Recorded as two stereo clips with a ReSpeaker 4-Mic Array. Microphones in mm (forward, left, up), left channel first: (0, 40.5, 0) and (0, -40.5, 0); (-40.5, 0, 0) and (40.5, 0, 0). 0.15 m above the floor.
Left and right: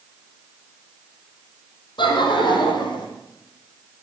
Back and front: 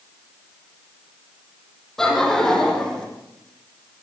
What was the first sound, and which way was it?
Laughter, 95° left.